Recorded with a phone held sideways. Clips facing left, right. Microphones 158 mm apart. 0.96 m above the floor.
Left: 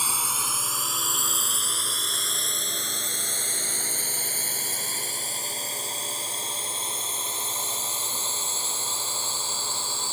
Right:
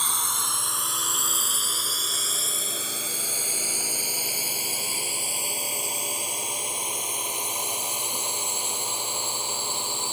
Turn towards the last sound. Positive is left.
turn(degrees=-15)  # may be behind; listen again after turning